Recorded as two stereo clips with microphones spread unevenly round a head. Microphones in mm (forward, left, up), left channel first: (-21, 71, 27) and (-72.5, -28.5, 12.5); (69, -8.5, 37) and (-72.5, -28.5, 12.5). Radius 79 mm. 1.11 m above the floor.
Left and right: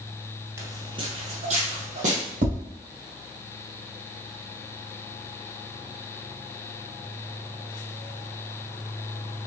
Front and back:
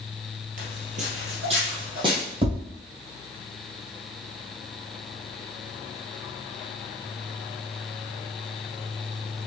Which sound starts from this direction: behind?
Footsteps, at 0.6 s.